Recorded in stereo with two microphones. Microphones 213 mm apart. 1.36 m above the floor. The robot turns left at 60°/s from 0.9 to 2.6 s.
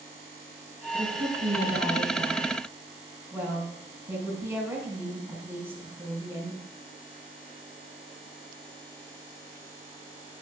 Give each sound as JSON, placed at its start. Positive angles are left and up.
{"t": 0.9, "sound": "a woman speaking", "azimuth_deg": -70, "distance_m": 4.5}